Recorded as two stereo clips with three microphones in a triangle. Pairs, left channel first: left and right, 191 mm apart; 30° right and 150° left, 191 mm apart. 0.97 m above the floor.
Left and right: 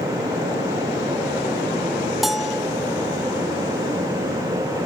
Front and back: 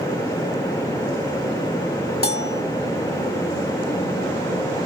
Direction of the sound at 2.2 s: Straight ahead.